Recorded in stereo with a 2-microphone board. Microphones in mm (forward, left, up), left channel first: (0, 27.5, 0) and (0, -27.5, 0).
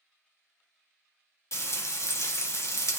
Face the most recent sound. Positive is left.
turn(degrees=60)  # may be behind; listen again after turning